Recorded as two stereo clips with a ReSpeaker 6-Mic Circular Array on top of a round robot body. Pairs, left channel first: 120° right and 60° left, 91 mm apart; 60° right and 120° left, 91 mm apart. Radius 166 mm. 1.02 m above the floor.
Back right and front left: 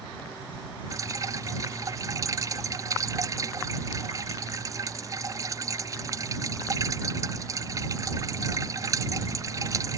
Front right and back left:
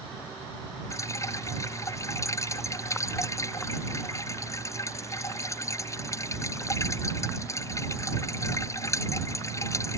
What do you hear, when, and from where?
0.9 s dripping: straight ahead